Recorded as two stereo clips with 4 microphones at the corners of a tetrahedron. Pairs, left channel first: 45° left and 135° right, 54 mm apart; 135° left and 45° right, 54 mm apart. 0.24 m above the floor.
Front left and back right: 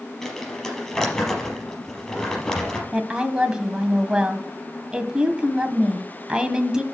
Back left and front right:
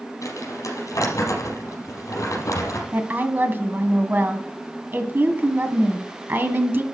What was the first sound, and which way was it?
Crumpling, 125° left.